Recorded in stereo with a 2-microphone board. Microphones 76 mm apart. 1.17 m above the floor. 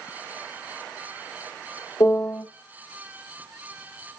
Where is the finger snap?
I don't hear a finger snap.